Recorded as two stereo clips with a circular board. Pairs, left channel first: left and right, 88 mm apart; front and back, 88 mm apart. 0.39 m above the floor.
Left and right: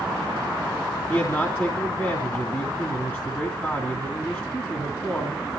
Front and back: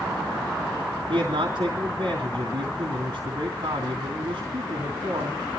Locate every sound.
1.1 s a man speaking: 155° left, 2.5 m